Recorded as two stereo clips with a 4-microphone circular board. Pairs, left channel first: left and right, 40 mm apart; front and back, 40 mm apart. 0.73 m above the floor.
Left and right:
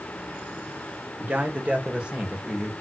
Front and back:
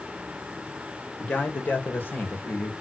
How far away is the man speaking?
About 3.5 m.